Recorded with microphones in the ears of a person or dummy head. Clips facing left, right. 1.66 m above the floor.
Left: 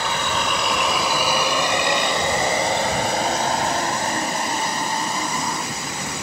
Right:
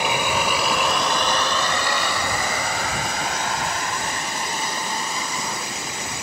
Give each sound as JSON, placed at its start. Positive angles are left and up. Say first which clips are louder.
{"t": 0.0, "sound": "a vehicle", "louder": "right 2 dB", "side_deg": -15}